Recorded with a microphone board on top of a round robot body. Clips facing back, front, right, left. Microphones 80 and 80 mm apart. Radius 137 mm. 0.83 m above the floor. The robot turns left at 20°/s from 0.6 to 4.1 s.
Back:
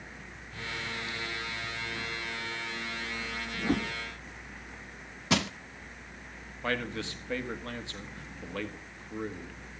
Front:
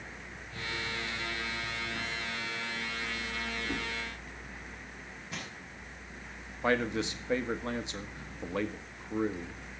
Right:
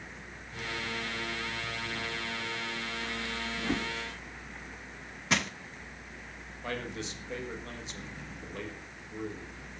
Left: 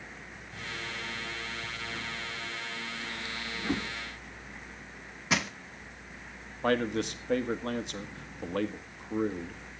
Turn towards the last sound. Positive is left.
turn(degrees=70)